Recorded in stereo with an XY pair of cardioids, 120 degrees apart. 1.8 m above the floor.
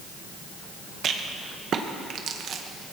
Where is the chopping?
No chopping in this recording.